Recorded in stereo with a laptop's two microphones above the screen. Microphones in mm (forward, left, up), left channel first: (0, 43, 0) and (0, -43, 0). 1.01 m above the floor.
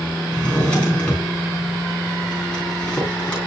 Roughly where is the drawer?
Centre.